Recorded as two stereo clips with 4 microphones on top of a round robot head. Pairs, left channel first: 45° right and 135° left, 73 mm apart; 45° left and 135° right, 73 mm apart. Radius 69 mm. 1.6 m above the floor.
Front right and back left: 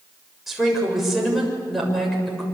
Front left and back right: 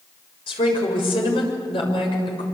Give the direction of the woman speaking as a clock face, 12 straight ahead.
10 o'clock.